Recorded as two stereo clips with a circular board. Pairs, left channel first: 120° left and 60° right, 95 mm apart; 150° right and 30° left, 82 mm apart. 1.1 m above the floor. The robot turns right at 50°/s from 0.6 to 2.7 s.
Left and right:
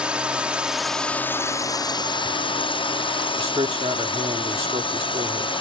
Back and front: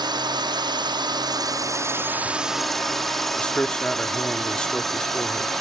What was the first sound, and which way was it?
A drone, 20° left.